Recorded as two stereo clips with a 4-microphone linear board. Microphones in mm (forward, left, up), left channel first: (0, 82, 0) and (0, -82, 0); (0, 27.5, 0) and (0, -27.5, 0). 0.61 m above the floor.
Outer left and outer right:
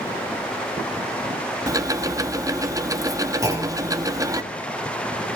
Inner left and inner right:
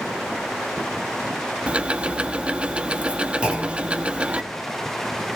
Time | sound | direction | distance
1.7 | ticking | 20° right (ahead or behind) | 0.8 m
3.4 | a clunk | 20° right (ahead or behind) | 3 m